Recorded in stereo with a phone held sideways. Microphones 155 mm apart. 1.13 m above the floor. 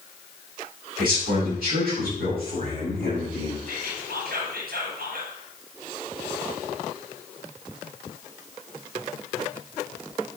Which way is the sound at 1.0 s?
75° right (ahead or behind).